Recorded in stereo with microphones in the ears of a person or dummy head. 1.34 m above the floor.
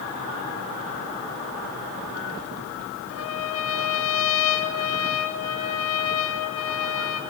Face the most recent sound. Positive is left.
turn(degrees=80)